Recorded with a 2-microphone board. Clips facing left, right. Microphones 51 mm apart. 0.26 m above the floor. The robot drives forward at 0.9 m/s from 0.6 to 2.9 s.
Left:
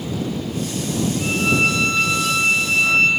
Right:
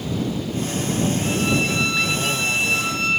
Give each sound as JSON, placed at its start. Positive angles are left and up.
{"t": 1.2, "sound": "a violin", "side_deg": 55, "distance_m": 1.3}